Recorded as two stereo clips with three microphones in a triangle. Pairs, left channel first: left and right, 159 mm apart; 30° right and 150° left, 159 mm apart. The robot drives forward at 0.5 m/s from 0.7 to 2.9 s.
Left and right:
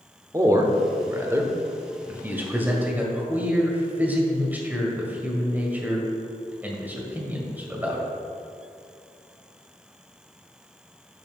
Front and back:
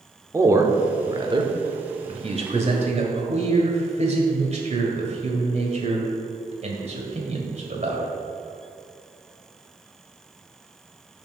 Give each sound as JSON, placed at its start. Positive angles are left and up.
{"t": 0.3, "sound": "a man speaking", "azimuth_deg": -150, "distance_m": 0.9}